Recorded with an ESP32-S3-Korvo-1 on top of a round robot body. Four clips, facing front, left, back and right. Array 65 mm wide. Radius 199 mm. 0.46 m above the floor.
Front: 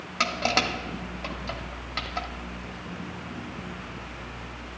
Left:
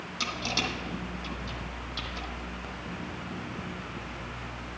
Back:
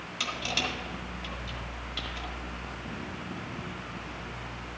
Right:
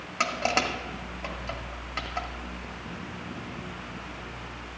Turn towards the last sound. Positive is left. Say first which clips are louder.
# right 7 dB, front 8 dB
turn(degrees=-45)